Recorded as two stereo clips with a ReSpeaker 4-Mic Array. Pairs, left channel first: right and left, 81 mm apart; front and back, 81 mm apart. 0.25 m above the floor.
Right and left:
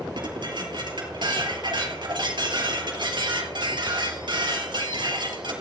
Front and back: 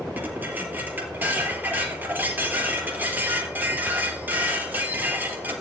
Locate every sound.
0.1 s dishes clattering: 110° left, 4 m